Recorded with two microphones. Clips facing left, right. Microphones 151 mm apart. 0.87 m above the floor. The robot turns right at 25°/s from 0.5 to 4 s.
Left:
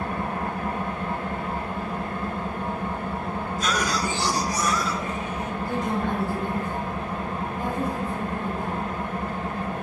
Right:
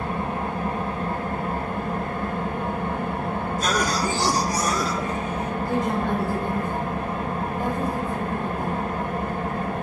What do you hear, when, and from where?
0.0 s an engine running: 150° right, 1.0 m; by 9.8 s 65° right, 1.0 m
3.6 s a cough: 45° right (ahead or behind), 0.6 m; by 5.5 s 40° right (ahead or behind), 0.6 m
5.7 s a woman speaking: 20° right (ahead or behind), 1.8 m